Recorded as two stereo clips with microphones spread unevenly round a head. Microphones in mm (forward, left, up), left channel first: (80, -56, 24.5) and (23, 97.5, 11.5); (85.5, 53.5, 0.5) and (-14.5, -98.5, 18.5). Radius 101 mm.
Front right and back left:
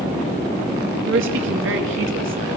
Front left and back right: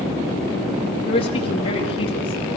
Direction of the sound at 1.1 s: 125° left.